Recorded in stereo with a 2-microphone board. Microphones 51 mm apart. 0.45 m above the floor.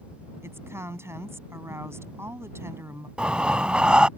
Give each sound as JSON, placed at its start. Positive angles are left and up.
{"t": 0.4, "sound": "a woman speaking", "side_deg": -70}
{"t": 3.2, "sound": "breathing", "side_deg": -20}